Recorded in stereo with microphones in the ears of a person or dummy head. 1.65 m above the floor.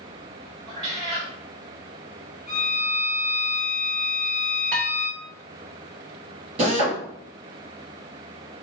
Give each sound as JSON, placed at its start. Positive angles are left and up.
{"t": 0.7, "sound": "a cat meowing", "side_deg": -25, "distance_m": 0.9}
{"t": 2.5, "sound": "a violin", "side_deg": -5, "distance_m": 1.4}
{"t": 4.7, "sound": "dishes clattering", "side_deg": -50, "distance_m": 1.1}
{"t": 6.6, "sound": "a drill", "side_deg": -40, "distance_m": 0.9}